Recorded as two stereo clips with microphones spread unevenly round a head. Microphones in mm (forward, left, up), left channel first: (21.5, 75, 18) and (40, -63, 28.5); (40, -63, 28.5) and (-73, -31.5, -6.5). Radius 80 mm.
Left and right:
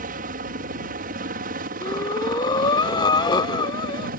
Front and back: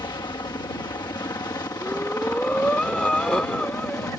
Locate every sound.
0.0 s a helicopter: 75° right; by 4.2 s 85° right
1.8 s breathing: 45° left